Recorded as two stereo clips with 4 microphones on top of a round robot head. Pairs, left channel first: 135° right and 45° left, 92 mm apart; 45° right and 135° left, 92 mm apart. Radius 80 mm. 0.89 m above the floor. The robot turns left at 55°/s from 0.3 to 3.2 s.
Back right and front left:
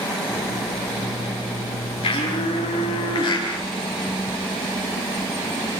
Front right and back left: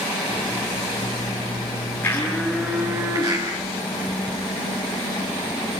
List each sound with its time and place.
2.0 s a blender: 110° right, 9.5 m; by 3.5 s 175° right, 9.5 m